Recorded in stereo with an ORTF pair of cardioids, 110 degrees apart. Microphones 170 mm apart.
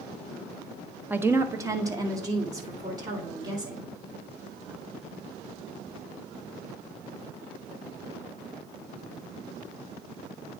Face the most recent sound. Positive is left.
turn(degrees=-20)